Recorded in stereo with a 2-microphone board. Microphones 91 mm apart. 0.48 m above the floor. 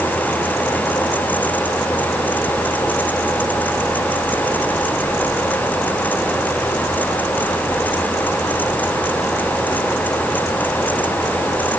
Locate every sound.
Only background noise.